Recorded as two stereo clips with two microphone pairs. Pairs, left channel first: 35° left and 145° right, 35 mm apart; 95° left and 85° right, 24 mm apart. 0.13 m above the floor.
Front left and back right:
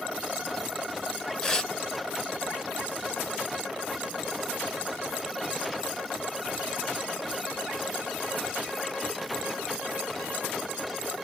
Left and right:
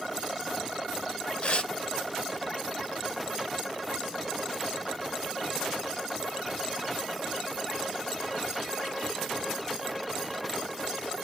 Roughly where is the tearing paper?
Left.